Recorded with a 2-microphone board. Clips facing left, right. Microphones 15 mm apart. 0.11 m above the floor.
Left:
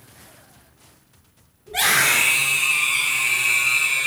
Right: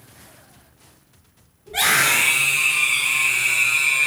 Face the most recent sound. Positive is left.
turn(degrees=-30)  # may be behind; listen again after turning